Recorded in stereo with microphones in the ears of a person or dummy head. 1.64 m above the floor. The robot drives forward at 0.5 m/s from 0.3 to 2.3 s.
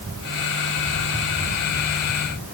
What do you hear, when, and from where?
Only background noise.